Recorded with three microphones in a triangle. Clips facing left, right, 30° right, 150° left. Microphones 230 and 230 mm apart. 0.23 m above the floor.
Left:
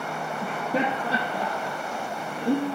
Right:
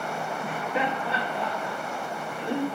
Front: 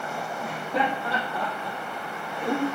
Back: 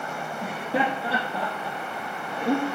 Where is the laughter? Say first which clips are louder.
Left 4 dB, back 2 dB; 95° left, 5 m.